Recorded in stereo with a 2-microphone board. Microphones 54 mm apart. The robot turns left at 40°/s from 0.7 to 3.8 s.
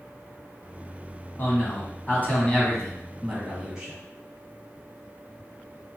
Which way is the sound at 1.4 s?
75° left.